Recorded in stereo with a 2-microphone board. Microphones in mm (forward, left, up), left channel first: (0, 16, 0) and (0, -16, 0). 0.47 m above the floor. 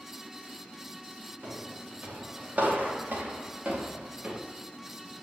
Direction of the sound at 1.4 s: 65° right (ahead or behind).